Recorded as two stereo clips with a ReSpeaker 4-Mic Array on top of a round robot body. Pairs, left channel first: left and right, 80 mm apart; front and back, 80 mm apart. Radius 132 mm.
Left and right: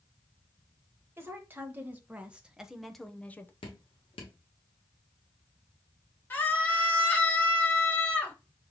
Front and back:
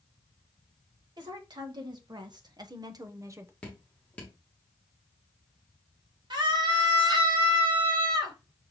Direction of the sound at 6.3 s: 155° left.